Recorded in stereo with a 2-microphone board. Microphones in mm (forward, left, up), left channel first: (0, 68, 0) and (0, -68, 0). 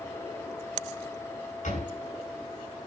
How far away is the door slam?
About 8.5 m.